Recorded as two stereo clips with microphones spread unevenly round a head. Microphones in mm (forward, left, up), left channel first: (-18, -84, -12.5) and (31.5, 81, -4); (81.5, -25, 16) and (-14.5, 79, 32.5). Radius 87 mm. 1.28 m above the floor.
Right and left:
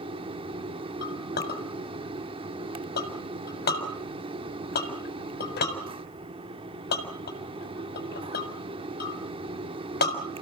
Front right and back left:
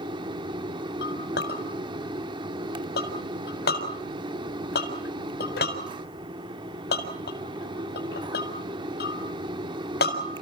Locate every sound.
0.0 s a fan: 110° left, 1.0 m
1.0 s a clink: 75° right, 4.5 m